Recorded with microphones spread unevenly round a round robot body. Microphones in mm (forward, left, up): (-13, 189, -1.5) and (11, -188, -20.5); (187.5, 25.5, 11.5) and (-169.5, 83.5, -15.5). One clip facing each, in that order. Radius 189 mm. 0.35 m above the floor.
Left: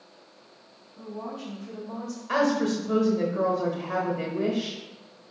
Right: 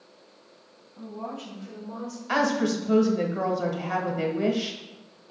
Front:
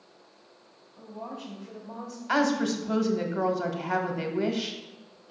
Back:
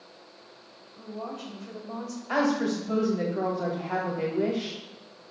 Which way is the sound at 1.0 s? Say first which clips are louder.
Even, back 3 dB; 165° right.